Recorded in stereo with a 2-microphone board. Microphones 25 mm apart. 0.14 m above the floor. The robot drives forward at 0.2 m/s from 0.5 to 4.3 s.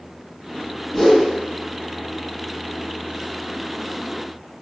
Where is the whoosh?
15° left (ahead or behind), 1.9 m.